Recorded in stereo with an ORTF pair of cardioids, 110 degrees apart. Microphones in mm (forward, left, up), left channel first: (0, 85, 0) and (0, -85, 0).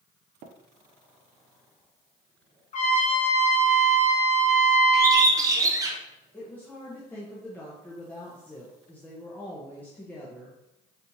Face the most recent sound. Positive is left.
turn(degrees=10)